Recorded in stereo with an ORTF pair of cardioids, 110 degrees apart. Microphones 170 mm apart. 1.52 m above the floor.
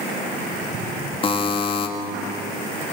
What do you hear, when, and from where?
1.2 s a buzzer: 35° left, 2 m